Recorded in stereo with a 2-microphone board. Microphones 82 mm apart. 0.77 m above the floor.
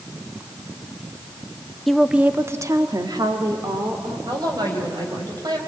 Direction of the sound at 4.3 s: 55° right (ahead or behind).